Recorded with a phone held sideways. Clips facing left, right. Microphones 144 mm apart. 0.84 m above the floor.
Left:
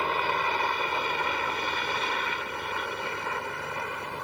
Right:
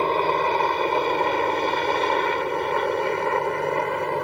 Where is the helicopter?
40° right (ahead or behind); by 4.2 s 65° right (ahead or behind).